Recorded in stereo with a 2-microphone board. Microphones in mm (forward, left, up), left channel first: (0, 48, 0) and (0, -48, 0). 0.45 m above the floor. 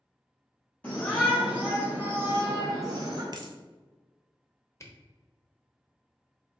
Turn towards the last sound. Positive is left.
turn(degrees=30)  # may be behind; listen again after turning